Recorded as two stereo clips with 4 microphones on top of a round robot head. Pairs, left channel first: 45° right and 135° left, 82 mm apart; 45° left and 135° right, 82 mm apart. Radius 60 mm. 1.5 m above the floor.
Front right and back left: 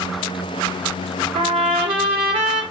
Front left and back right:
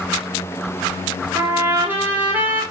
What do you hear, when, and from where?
1.4 s a trumpet: 155° left, 4 m